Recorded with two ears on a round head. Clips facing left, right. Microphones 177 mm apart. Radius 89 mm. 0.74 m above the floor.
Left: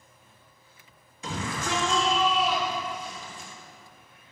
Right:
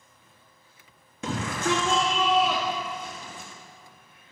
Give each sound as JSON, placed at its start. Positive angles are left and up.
{"t": 1.2, "sound": "a shout", "side_deg": -50, "distance_m": 1.2}